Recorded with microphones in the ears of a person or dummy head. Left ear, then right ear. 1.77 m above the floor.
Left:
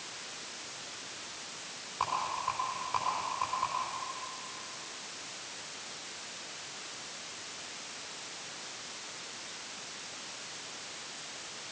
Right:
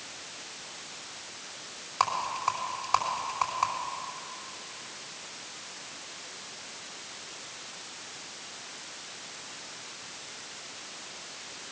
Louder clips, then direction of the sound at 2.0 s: Right 5 dB; 60° right (ahead or behind).